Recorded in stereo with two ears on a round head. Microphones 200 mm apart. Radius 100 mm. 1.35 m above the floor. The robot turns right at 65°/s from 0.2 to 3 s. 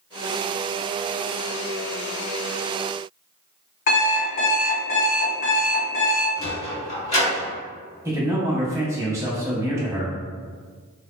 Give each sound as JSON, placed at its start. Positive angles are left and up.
{"t": 3.9, "sound": "an alarm clock", "side_deg": 40, "distance_m": 1.4}
{"t": 6.4, "sound": "a sliding door", "side_deg": 30, "distance_m": 1.4}
{"t": 8.1, "sound": "a man speaking", "side_deg": -15, "distance_m": 0.8}